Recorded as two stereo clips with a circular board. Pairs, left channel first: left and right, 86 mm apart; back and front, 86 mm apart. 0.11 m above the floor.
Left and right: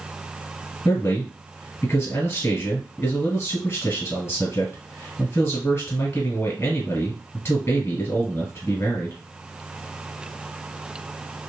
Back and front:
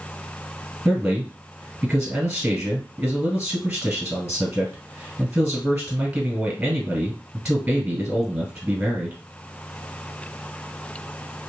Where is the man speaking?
70° left, 1.7 m.